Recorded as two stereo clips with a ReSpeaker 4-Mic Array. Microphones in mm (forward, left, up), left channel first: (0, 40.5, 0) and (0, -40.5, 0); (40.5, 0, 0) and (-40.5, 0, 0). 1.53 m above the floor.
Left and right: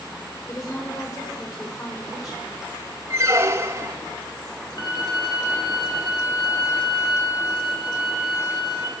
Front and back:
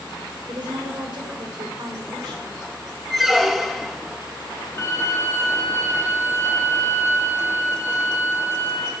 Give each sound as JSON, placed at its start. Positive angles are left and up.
{"t": 0.5, "sound": "a woman speaking", "azimuth_deg": 145, "distance_m": 6.0}
{"t": 3.1, "sound": "a squeak", "azimuth_deg": -90, "distance_m": 0.9}
{"t": 4.8, "sound": "a violin", "azimuth_deg": 55, "distance_m": 4.0}